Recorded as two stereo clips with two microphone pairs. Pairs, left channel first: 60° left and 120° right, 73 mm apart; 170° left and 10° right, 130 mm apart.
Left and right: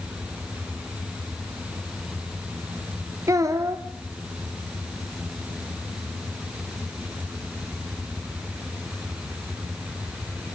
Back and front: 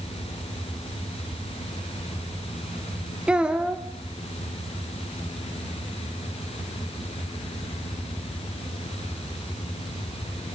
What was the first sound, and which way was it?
A child speaking, 90° right.